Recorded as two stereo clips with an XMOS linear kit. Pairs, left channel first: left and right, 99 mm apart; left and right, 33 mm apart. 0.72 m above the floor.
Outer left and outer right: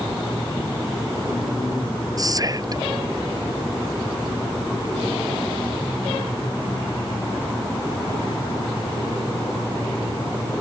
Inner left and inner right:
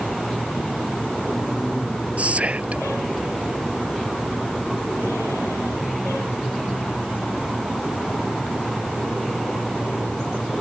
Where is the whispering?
40° right (ahead or behind).